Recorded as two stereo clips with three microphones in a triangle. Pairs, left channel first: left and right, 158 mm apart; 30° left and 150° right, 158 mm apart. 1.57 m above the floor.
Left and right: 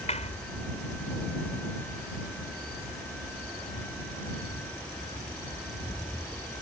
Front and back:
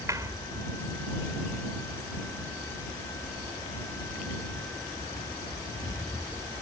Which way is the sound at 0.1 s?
140° left.